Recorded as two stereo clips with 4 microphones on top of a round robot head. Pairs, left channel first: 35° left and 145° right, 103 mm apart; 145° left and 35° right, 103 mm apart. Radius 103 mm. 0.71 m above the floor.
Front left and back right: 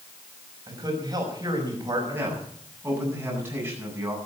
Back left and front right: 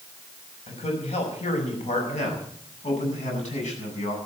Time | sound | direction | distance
0.7 | a man speaking | 160° left | 6 m
2.1 | a man speaking | 145° left | 8.5 m